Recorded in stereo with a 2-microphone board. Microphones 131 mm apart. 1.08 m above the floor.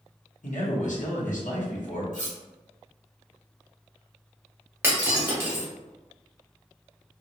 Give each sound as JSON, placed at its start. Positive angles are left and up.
{"t": 0.4, "sound": "a man speaking", "side_deg": 70, "distance_m": 0.9}
{"t": 2.1, "sound": "cutlery clinking", "side_deg": 70, "distance_m": 1.2}
{"t": 4.8, "sound": "breaking glass", "side_deg": -15, "distance_m": 0.9}